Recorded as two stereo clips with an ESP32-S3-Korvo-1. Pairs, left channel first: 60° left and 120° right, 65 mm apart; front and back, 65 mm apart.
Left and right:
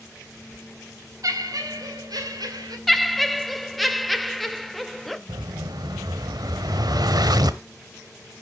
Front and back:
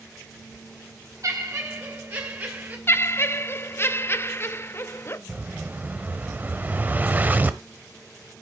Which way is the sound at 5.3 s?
115° right.